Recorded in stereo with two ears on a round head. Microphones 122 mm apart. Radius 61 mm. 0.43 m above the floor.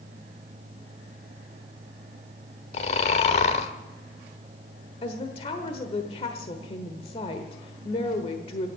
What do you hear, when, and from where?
2.7 s snoring: 50° left (ahead or behind), 1.1 m
5.0 s a woman speaking: 45° left (ahead or behind), 1.2 m